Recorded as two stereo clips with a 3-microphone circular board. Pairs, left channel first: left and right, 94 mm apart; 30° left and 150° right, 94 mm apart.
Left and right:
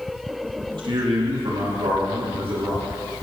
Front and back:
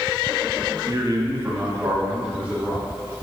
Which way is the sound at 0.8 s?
110° right.